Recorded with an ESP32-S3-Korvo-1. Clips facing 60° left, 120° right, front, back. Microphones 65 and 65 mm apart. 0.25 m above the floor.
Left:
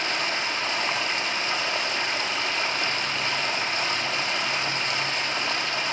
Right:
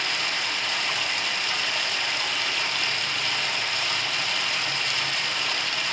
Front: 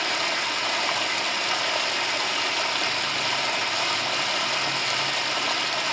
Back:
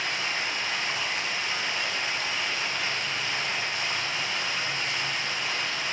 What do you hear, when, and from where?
0.0 s running water: 10° left, 0.8 m